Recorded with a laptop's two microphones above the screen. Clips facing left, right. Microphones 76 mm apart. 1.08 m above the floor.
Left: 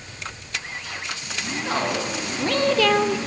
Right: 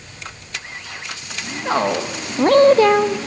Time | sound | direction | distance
1.6 | a woman speaking | 30° right (ahead or behind) | 1.5 m